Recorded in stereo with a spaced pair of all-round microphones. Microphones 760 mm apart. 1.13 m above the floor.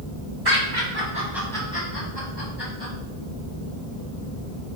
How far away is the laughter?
About 1.5 m.